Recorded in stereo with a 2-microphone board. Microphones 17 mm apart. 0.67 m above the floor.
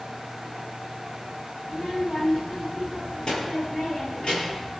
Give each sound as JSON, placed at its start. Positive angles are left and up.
{"t": 1.6, "sound": "a child speaking", "side_deg": 50, "distance_m": 9.5}